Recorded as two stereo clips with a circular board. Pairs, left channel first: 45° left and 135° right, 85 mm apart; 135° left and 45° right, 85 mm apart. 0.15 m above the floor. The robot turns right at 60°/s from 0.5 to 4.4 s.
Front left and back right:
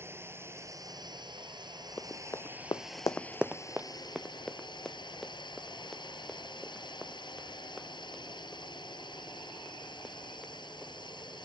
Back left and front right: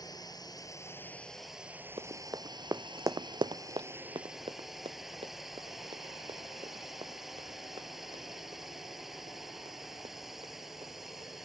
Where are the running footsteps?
25° right; by 11.4 s 45° right.